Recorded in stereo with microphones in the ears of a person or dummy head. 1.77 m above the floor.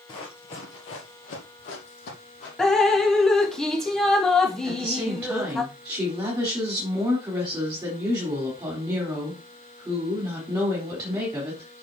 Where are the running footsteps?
20° left (ahead or behind), 1.8 m; by 2.5 s 50° left (ahead or behind), 4.5 m.